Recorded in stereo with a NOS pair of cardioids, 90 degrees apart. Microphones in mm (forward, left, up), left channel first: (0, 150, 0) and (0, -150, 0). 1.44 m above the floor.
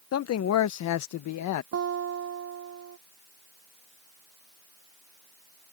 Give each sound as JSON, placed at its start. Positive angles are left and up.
{"t": 0.1, "sound": "a man speaking", "azimuth_deg": 55}
{"t": 1.7, "sound": "a guitar", "azimuth_deg": -55}